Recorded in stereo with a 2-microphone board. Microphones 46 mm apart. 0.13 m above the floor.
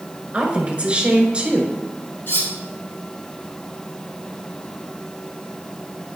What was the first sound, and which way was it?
A woman speaking, 25° right (ahead or behind).